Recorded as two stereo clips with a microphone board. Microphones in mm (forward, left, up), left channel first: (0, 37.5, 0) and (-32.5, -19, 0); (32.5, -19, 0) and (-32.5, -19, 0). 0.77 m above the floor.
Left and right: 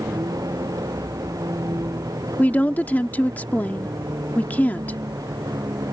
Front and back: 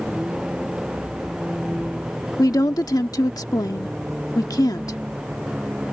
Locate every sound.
0.0 s a vehicle: 100° right
2.4 s a woman speaking: straight ahead